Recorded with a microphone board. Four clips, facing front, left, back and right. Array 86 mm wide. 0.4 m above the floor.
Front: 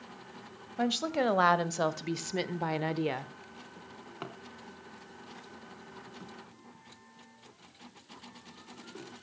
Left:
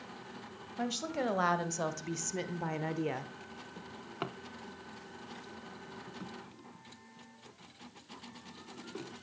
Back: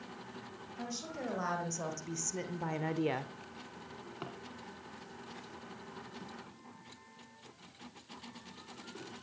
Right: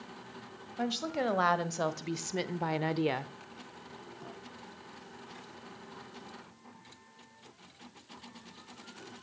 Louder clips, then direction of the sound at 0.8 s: Right 2 dB, front 13 dB; 10° right.